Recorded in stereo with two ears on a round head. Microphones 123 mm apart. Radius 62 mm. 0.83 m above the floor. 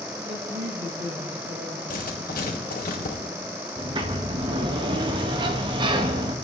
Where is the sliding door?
35° right (ahead or behind), 1.1 m.